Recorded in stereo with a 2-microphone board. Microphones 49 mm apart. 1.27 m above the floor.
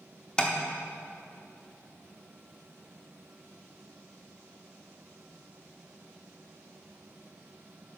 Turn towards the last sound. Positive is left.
turn(degrees=20)  # may be behind; listen again after turning